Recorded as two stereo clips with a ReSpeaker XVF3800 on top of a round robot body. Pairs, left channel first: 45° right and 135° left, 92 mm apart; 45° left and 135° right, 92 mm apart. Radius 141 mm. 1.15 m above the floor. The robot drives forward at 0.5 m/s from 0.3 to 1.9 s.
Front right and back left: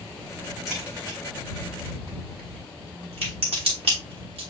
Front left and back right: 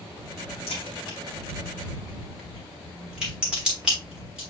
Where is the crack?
45° left, 0.7 m; by 4.4 s 145° left, 0.8 m.